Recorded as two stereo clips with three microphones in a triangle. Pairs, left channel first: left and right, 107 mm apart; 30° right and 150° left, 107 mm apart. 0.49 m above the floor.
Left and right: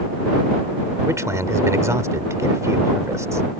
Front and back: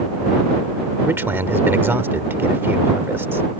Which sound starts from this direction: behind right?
A man speaking, at 1.1 s.